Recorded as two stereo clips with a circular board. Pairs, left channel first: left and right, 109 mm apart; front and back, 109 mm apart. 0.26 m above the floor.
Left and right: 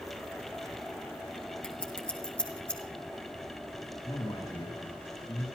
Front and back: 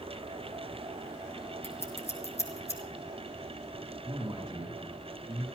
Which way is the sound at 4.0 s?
135° left.